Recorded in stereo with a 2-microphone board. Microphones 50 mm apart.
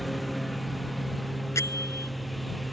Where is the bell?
80° left.